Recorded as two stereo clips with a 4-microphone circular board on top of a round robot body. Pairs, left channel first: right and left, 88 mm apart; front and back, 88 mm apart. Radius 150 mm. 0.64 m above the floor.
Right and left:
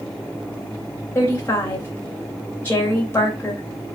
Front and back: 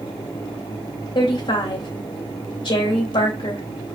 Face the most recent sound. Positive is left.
turn(degrees=-25)